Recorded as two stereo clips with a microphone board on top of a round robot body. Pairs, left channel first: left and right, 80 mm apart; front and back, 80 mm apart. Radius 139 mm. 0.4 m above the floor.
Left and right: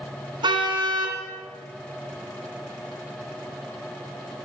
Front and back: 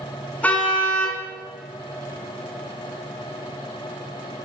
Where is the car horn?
70° right, 3 m.